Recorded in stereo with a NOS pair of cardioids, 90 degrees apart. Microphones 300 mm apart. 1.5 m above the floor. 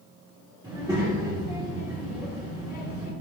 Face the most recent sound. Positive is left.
turn(degrees=-10)